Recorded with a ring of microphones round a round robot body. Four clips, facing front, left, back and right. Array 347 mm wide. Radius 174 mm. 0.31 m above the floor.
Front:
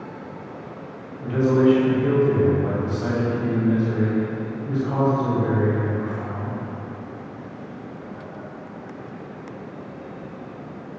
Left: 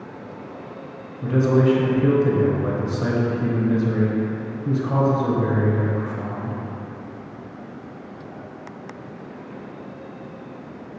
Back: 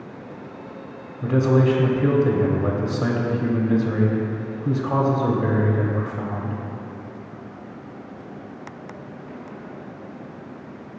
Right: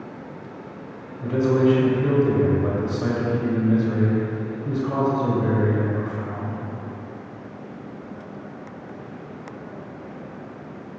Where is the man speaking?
175° left, 1.3 m.